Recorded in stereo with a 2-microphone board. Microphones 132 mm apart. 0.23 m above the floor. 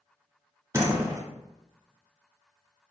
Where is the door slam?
20° right (ahead or behind), 1.5 m.